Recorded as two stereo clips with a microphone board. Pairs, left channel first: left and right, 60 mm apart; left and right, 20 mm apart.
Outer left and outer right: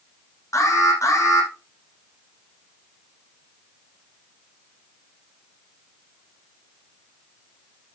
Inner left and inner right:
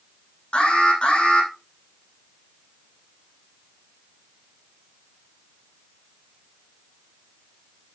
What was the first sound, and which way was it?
An alarm, 65° left (ahead or behind).